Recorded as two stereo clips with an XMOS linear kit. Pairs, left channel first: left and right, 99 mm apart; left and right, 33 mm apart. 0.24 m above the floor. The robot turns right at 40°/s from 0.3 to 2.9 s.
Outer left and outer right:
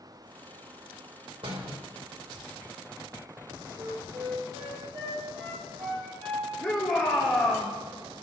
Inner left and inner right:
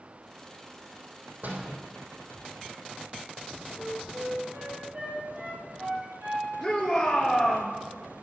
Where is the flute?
60° right (ahead or behind), 7.5 m.